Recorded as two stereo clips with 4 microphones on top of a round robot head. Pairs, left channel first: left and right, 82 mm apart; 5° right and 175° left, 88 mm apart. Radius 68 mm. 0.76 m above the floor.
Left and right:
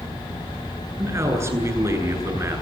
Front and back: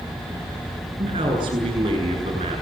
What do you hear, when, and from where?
1.0 s a man speaking: 145° right, 9.5 m